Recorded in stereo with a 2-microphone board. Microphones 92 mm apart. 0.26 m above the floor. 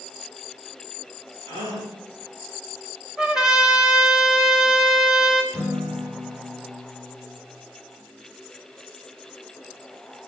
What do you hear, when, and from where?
1.5 s a gasp: 90° right, 6 m
3.2 s a trumpet: 5° right (ahead or behind), 1.5 m
5.5 s a guitar: 25° right (ahead or behind), 4 m